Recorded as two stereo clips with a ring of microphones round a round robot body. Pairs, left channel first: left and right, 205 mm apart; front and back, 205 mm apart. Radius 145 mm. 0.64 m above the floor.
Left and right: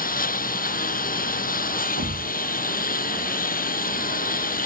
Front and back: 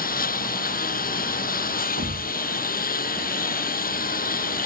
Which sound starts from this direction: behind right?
A thud, at 2.0 s.